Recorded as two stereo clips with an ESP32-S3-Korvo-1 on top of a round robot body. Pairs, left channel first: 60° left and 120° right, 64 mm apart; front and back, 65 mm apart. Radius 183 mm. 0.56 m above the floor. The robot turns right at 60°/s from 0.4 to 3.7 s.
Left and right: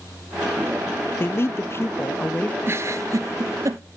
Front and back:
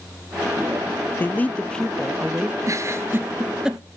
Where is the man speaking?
35° left, 0.7 m; by 2.5 s 115° left, 0.7 m.